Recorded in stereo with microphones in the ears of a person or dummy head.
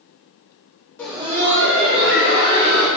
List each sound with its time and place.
1.0 s laughter: 10° left (ahead or behind), 0.5 m; by 2.9 s 80° right, 2.5 m